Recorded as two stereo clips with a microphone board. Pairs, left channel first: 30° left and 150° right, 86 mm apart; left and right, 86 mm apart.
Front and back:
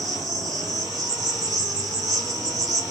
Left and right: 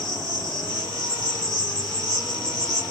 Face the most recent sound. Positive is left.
turn(degrees=-115)